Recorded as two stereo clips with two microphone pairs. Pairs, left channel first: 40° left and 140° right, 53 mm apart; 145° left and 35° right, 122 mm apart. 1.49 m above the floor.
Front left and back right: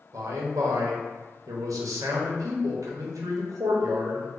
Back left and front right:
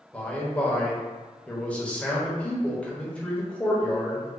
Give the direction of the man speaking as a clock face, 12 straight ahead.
5 o'clock.